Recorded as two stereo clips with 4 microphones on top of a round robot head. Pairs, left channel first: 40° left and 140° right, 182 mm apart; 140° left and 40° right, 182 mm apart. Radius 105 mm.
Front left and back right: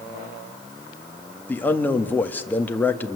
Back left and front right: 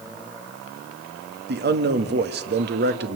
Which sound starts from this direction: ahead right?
A man speaking, at 1.5 s.